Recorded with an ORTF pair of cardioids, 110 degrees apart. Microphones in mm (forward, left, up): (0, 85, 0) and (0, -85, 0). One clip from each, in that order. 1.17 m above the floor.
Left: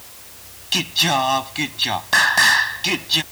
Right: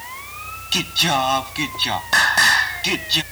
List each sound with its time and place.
0.7 s singing: 5° left